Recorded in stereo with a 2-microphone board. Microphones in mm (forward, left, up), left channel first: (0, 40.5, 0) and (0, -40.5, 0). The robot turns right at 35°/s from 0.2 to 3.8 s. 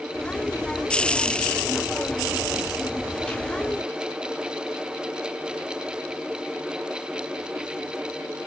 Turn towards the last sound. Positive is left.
No sound to turn to.